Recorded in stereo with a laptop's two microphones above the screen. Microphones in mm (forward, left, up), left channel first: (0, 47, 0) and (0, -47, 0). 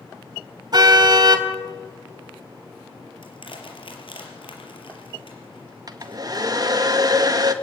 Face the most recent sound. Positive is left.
turn(degrees=-45)  # may be behind; listen again after turning